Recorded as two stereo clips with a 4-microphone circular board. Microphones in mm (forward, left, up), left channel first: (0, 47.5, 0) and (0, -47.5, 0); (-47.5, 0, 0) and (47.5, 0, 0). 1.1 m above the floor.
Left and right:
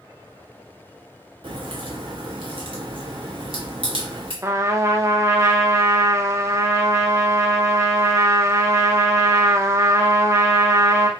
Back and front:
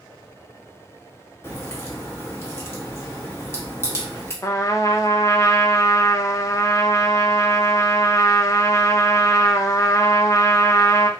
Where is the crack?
120° right, 1.0 m.